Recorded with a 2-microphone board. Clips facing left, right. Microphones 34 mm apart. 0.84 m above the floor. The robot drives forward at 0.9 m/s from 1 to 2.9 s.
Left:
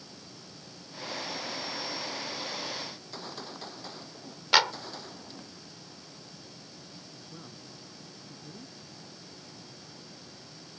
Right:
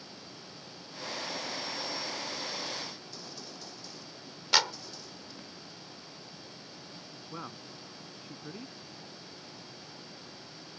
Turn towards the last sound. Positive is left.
turn(degrees=-80)